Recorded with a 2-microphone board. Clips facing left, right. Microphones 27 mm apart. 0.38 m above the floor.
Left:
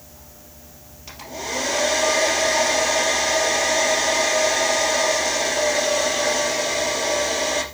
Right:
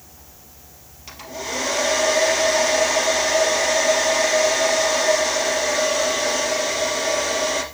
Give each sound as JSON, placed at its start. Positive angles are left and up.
{"t": 1.1, "sound": "a hair dryer", "side_deg": 0, "distance_m": 2.5}